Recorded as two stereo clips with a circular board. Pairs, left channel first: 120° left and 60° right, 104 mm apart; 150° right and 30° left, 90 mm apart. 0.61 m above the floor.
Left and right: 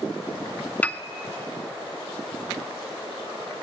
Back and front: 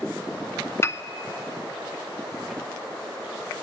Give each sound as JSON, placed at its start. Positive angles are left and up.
{"t": 0.8, "sound": "a piano", "azimuth_deg": -175, "distance_m": 0.6}